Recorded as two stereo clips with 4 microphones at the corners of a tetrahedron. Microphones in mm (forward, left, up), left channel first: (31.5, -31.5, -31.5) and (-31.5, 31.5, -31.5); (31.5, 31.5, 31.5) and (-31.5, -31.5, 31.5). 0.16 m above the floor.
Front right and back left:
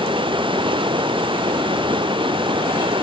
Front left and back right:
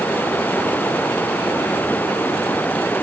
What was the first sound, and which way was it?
Running water, 115° left.